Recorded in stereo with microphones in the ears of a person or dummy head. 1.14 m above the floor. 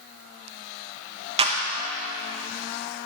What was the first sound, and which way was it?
A clap, 30° right (ahead or behind).